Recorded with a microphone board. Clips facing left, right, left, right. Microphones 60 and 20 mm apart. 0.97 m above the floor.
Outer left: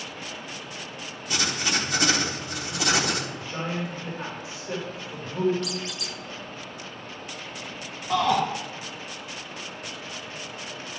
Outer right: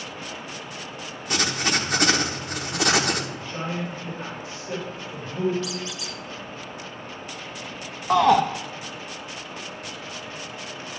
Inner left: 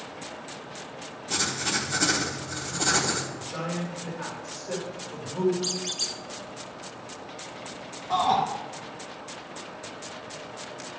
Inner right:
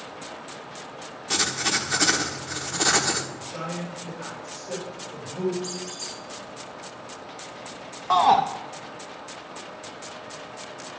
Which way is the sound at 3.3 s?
10° left (ahead or behind).